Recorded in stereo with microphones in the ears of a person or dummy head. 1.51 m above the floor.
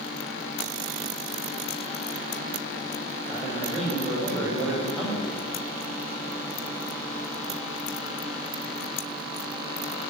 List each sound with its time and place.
3.3 s a man speaking: 5° right (ahead or behind), 6 m